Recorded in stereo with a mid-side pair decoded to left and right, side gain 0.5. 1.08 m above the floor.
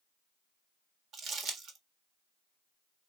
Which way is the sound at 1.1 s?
65° right.